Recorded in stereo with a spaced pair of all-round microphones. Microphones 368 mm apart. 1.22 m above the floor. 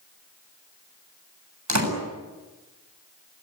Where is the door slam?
55° right (ahead or behind), 7.5 m.